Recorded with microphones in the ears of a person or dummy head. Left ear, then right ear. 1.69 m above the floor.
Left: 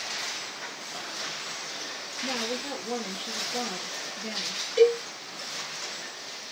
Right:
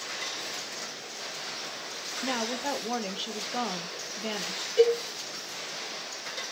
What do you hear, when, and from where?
2.2 s a woman speaking: 60° right (ahead or behind), 0.8 m
4.8 s a cowbell: 20° left (ahead or behind), 1.2 m